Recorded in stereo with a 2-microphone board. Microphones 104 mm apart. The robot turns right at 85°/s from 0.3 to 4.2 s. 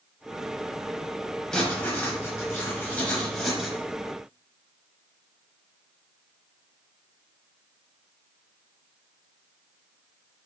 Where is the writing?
5° left (ahead or behind), 1.1 m; by 3.8 s 10° right (ahead or behind), 1.1 m.